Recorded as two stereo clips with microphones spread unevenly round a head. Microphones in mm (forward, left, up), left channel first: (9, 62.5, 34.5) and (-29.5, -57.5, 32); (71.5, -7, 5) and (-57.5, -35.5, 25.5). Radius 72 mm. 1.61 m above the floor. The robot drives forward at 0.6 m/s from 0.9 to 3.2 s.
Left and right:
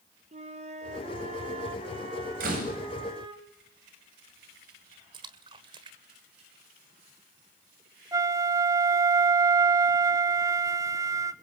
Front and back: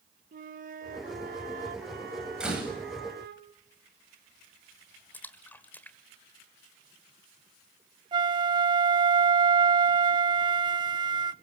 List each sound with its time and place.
0.3 s a flute: 145° right, 1.9 m; by 3.4 s 160° right, 3 m
2.4 s a door slam: 85° right, 8.5 m
5.1 s a splash: 70° right, 1.5 m
8.1 s a flute: 165° right, 0.9 m